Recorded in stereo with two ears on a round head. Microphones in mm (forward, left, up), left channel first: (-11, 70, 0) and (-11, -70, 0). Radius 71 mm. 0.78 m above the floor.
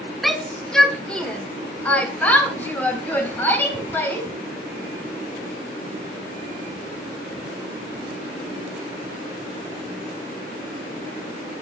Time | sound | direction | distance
0.2 | a shout | centre (ahead or behind) | 1.7 m